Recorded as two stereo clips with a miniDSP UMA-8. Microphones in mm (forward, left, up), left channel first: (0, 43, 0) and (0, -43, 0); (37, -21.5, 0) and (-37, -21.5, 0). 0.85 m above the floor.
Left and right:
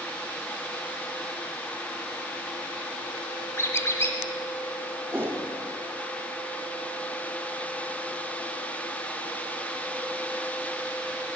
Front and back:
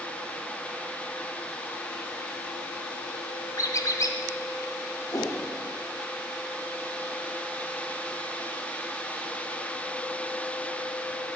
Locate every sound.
3.6 s a squeak: 35° left, 1.6 m
5.1 s a whoosh: 25° right, 1.9 m